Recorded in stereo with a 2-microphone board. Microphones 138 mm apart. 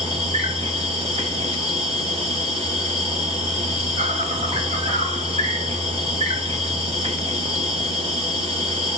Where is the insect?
45° right (ahead or behind), 0.9 m.